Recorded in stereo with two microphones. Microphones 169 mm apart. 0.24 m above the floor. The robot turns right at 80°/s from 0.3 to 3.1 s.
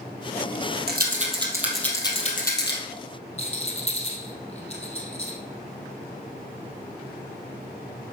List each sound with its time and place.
0.9 s a rattle: 70° right (ahead or behind), 2.5 m; by 2.8 s 80° left, 2.5 m
3.4 s a rattle: 40° left (ahead or behind), 3 m